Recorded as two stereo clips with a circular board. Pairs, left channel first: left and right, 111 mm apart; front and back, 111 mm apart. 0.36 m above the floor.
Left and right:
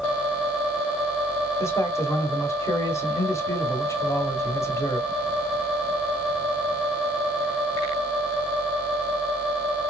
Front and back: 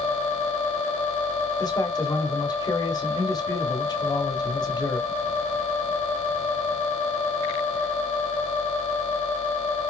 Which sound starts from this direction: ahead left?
A man speaking, at 1.6 s.